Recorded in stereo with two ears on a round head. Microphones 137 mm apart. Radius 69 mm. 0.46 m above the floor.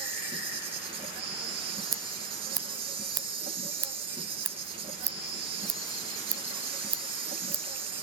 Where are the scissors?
25° right (ahead or behind), 0.7 m.